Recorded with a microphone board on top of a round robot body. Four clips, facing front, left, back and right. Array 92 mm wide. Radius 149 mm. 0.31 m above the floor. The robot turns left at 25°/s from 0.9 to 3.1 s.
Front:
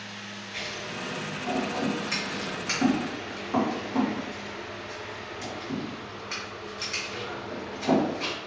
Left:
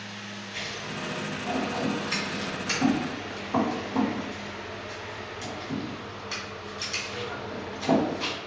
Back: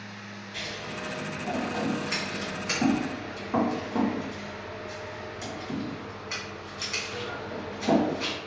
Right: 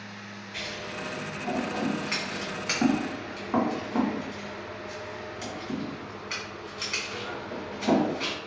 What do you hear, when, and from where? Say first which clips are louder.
0.5 s scissors: even, even; 35° right, 1.9 m; by 8.3 s 90° right, 1.9 m